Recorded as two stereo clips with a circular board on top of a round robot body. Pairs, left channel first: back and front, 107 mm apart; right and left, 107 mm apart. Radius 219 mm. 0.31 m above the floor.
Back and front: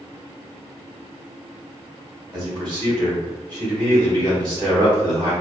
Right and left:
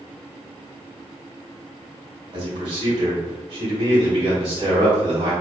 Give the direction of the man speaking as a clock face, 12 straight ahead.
10 o'clock.